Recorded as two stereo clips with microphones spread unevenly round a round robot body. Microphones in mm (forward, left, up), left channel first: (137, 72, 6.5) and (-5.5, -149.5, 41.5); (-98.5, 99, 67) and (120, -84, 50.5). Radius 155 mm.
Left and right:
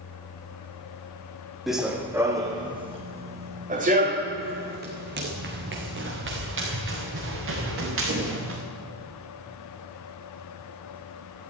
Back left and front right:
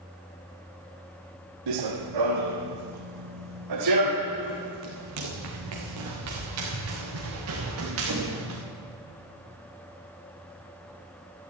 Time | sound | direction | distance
1.7 | running footsteps | 35° right | 1.6 m